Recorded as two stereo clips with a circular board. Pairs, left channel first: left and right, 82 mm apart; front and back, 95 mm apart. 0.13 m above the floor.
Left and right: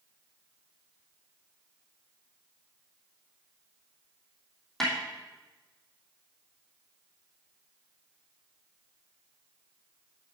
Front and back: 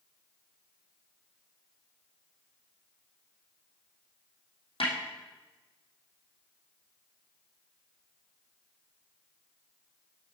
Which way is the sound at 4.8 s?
5° left.